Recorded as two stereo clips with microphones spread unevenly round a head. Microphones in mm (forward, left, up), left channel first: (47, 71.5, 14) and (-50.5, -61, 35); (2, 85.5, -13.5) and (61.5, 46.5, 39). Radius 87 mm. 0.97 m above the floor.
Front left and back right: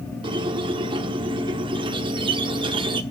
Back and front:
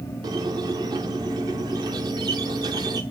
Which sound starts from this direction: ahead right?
A squeak, at 0.2 s.